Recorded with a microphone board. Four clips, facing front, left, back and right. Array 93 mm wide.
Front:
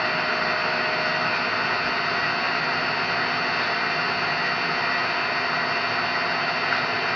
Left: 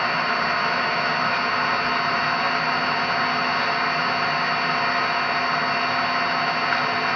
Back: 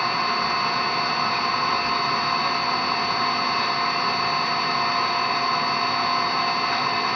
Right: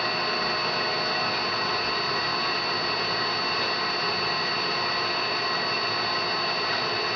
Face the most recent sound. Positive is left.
turn(degrees=55)